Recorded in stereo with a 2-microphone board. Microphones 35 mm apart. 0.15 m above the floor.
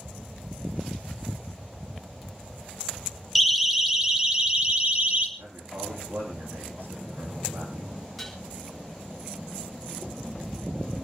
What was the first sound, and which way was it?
A siren, 5° right (ahead or behind).